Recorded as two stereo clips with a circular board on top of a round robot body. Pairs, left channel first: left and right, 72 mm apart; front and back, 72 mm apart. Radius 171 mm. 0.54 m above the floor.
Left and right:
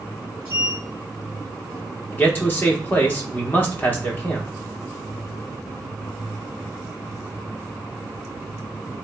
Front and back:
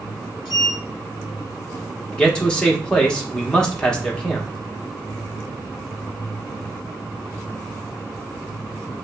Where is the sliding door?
30° right, 0.6 m.